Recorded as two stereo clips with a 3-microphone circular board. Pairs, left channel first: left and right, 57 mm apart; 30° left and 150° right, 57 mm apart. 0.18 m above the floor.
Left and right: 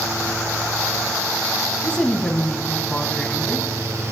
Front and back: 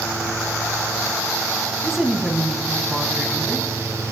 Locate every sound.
1.8 s a woman speaking: 140° left, 1.2 m